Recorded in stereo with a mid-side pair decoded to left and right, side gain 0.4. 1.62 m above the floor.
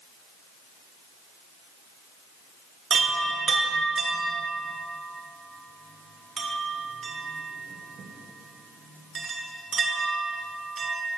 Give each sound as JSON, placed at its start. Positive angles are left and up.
{"t": 2.9, "sound": "a chime", "azimuth_deg": -55, "distance_m": 1.5}